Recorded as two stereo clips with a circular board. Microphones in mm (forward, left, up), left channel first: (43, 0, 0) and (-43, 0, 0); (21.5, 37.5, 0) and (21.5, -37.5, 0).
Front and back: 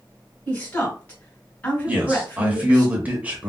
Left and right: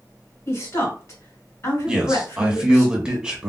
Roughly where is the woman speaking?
Ahead left.